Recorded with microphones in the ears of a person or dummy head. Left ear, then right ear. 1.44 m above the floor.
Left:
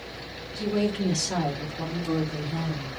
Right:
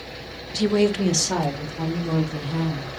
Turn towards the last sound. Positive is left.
turn(degrees=-65)  # may be behind; listen again after turning